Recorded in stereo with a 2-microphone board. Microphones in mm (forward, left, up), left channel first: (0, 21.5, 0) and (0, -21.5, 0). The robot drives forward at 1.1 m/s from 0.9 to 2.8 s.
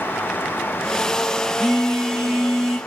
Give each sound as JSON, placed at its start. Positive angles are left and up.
{"t": 1.6, "sound": "a phone buzzing", "side_deg": 0, "distance_m": 2.5}